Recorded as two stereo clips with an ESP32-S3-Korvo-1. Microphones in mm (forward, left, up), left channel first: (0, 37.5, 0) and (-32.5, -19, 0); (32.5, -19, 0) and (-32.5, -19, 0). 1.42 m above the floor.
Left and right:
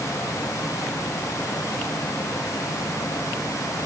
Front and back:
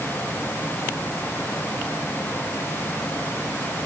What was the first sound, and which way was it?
Only background noise.